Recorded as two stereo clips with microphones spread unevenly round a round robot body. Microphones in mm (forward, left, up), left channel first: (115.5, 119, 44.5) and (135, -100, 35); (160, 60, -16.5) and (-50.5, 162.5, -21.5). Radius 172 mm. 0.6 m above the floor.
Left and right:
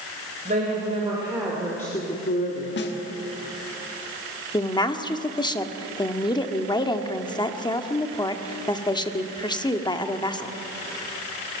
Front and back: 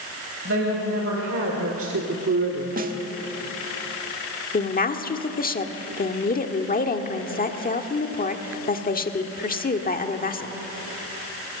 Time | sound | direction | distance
0.5 | a woman speaking | 150° right | 3.5 m
2.8 | a snare drum | 115° left | 1.5 m
4.5 | a woman speaking | 25° left | 1.6 m